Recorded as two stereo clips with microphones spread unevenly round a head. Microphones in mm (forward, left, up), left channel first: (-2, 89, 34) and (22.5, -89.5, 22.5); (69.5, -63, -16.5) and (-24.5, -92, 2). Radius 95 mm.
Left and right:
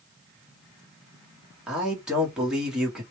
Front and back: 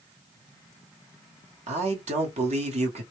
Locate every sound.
1.7 s a man speaking: 170° right, 1.0 m